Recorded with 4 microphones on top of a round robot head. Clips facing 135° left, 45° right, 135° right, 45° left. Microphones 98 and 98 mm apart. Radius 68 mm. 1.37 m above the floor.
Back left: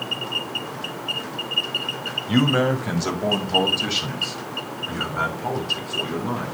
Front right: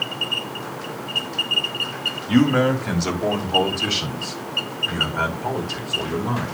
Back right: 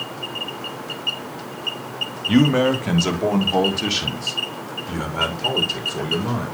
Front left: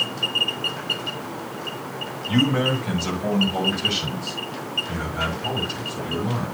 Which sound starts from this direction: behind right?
A man speaking, at 2.3 s.